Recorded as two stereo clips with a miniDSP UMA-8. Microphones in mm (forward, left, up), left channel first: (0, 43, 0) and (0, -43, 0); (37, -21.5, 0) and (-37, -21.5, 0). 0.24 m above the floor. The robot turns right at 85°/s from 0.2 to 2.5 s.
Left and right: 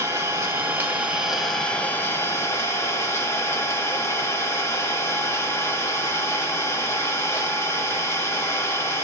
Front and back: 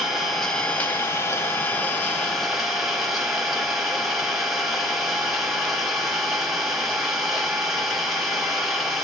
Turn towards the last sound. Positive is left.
turn(degrees=95)